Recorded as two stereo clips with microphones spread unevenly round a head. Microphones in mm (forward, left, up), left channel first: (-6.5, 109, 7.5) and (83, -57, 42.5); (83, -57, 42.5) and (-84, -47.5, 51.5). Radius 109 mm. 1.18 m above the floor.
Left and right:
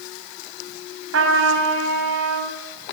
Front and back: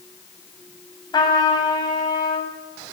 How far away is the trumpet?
About 8 m.